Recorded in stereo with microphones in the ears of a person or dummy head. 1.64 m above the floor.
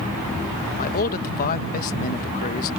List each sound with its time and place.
0.8 s a man speaking: 45° left (ahead or behind)